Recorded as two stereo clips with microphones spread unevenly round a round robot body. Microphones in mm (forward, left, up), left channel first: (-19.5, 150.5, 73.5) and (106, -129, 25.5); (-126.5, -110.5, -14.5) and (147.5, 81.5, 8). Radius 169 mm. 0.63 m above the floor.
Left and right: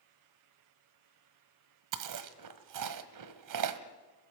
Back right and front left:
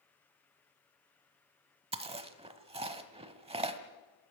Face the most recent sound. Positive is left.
turn(degrees=-40)